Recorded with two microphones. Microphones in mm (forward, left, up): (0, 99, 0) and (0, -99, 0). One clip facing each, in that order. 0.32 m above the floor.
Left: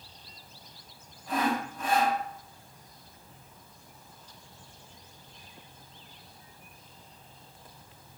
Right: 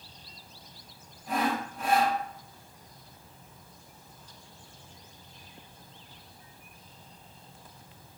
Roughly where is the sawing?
Centre.